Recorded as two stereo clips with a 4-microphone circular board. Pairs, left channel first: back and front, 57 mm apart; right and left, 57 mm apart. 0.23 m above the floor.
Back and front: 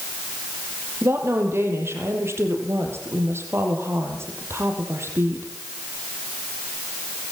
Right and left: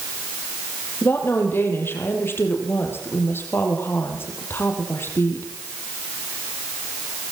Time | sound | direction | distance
1.0 | a woman speaking | 40° right | 6 m